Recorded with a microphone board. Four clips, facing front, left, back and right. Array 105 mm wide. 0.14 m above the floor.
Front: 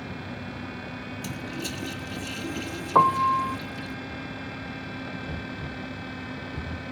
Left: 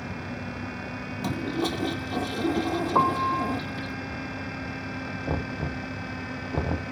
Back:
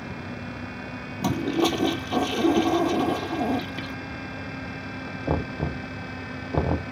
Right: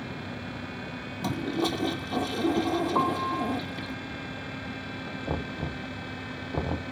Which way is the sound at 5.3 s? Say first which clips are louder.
Left 2 dB, back 8 dB; 175° left.